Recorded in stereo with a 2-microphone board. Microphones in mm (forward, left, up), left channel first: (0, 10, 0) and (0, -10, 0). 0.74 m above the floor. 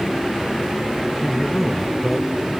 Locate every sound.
1.2 s a man speaking: centre (ahead or behind)